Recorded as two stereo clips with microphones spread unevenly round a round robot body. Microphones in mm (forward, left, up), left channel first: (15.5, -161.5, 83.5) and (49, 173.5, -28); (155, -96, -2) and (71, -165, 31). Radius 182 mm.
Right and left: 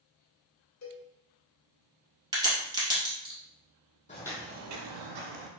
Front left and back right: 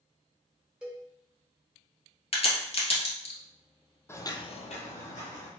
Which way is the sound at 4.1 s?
40° right.